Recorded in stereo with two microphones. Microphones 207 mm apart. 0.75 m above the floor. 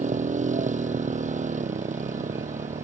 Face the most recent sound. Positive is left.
turn(degrees=-35)  # may be behind; listen again after turning